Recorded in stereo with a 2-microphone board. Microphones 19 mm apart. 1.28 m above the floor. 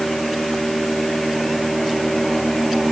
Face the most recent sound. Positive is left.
No sound to turn to.